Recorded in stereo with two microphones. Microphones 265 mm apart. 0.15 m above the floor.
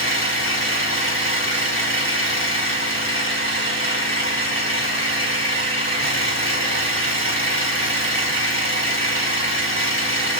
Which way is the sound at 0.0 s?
45° left (ahead or behind).